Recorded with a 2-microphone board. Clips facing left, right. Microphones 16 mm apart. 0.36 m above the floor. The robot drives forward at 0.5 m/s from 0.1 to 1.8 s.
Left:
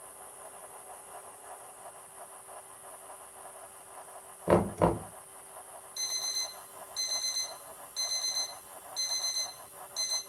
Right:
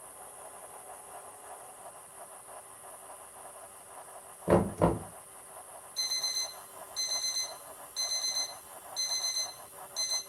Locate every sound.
4.5 s knocking: 20° left (ahead or behind), 0.5 m
6.0 s an alarm clock: 20° left (ahead or behind), 1.3 m